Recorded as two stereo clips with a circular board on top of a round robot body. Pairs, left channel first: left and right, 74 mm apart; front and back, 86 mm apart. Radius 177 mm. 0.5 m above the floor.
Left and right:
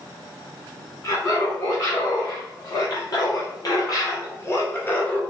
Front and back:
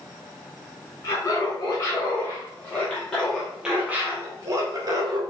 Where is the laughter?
50° left, 2.0 m; by 5.2 s 160° left, 1.3 m.